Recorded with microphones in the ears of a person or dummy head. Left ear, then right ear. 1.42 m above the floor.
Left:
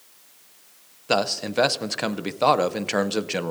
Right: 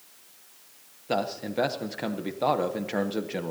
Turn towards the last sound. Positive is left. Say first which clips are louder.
# left 6 dB
turn(degrees=30)  # may be behind; listen again after turning